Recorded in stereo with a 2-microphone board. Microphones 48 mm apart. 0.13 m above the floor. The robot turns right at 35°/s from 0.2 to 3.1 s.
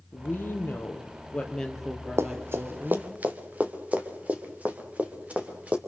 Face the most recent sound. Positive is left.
turn(degrees=-30)  # may be behind; listen again after turning